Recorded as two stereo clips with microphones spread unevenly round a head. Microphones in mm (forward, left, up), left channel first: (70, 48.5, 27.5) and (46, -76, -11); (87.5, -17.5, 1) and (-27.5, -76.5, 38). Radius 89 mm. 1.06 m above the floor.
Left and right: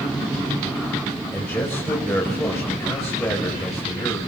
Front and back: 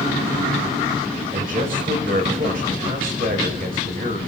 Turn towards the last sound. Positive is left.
turn(degrees=160)